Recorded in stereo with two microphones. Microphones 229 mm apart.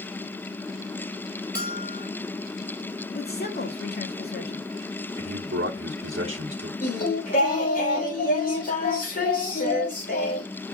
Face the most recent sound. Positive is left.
turn(degrees=35)  # may be behind; listen again after turning